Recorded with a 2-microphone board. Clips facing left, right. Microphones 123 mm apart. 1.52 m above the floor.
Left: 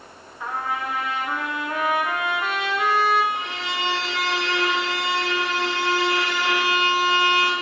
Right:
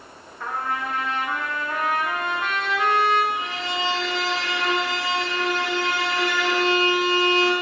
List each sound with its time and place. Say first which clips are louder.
0.4 s a trumpet: even; 5° left (ahead or behind), 1.2 m
3.4 s a violin: right 1 dB; 25° left (ahead or behind), 2.5 m